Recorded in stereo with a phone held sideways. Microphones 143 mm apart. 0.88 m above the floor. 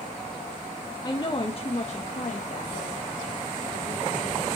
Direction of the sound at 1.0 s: 25° left (ahead or behind).